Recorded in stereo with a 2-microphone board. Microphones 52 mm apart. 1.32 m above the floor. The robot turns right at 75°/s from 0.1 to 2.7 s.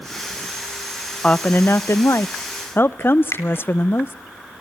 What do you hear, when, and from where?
1.2 s a woman speaking: 25° left, 0.5 m; by 4.1 s 135° left, 0.5 m
3.3 s a finger snap: 85° left, 3.5 m